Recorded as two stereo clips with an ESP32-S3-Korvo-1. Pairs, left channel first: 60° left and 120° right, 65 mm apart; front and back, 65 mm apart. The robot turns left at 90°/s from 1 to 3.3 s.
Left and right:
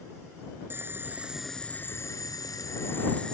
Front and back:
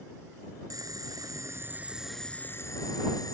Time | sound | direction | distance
0.7 | boiling | 170° right | ?